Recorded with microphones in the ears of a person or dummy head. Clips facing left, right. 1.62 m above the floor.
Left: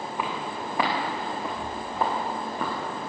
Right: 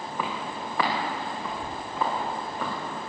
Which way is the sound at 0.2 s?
15° left (ahead or behind).